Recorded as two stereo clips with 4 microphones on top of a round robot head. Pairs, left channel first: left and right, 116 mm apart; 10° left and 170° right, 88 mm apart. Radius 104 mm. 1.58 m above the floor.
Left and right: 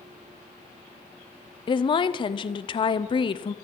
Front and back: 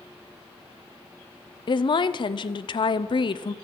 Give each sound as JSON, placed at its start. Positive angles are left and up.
{"t": 1.7, "sound": "a woman speaking", "azimuth_deg": 40, "distance_m": 0.6}